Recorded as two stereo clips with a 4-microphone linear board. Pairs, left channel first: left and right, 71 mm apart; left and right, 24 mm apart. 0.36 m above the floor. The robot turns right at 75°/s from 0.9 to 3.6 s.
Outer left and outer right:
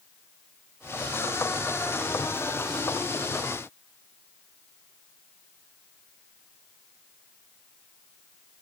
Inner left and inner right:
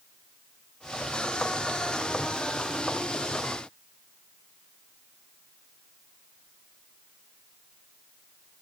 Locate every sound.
Only background noise.